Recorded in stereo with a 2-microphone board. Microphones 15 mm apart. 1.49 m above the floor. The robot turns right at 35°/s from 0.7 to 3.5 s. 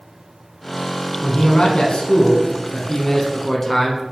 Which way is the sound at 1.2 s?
80° left.